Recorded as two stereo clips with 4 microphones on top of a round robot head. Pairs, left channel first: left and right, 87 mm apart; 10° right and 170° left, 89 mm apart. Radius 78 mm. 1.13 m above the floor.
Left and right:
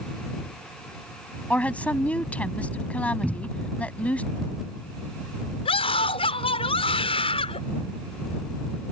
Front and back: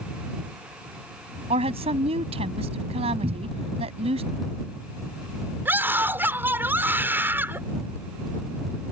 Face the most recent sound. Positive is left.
turn(degrees=105)